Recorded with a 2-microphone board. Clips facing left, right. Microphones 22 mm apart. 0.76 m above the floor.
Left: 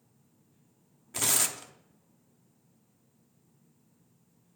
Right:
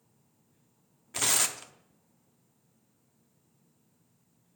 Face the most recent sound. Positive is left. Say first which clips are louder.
# right 1 dB
turn(degrees=-15)  # may be behind; listen again after turning